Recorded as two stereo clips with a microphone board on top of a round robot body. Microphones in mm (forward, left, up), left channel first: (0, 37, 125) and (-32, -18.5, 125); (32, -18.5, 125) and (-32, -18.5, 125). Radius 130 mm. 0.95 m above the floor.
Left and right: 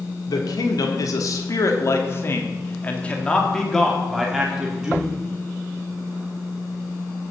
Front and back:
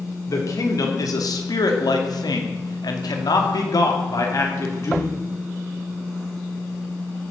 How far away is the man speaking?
About 3.5 m.